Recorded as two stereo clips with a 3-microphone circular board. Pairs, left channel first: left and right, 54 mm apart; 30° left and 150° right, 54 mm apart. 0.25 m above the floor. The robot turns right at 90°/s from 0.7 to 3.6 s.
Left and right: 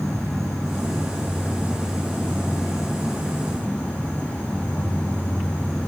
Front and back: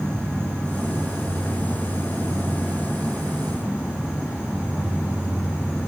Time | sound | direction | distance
0.0 | an insect | 110° right | 5.5 m